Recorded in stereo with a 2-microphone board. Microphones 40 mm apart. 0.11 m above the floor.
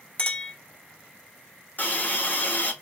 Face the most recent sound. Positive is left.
turn(degrees=55)  # may be behind; listen again after turning